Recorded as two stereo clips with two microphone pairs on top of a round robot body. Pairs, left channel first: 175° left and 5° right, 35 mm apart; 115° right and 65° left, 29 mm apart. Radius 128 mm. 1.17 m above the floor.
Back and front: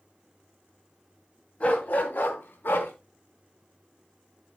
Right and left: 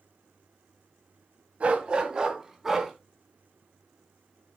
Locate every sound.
1.6 s a dog barking: 115° left, 2 m; by 2.9 s 150° left, 3.5 m